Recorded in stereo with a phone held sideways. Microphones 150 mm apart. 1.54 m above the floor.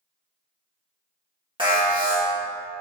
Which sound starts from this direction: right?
An alarm, at 1.6 s.